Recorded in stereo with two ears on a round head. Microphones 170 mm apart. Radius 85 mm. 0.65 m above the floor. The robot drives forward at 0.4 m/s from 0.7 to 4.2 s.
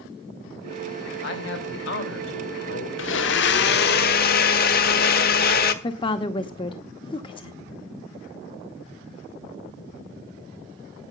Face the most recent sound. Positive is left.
turn(degrees=25)  # may be behind; listen again after turning